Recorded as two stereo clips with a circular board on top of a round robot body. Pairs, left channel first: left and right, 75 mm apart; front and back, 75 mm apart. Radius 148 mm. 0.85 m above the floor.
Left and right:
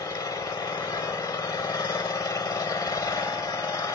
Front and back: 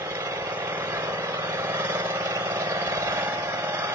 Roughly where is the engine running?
Behind left.